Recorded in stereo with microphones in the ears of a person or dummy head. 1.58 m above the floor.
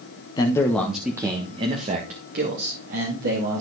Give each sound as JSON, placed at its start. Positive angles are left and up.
{"t": 0.4, "sound": "a man speaking", "side_deg": 30, "distance_m": 1.2}